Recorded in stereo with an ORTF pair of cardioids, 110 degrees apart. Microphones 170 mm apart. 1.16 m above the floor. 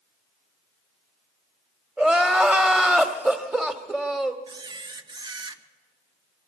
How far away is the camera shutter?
About 1.1 m.